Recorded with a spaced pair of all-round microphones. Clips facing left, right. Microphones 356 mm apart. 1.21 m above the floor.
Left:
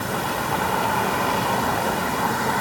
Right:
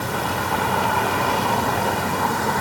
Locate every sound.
Only background noise.